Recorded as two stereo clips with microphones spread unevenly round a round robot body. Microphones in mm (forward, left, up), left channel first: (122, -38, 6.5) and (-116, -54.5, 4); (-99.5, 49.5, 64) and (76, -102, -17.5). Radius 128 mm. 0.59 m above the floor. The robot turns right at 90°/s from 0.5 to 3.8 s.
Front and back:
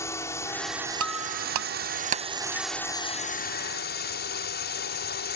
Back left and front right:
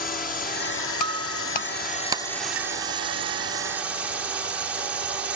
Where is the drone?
75° left; by 5.4 s 15° left.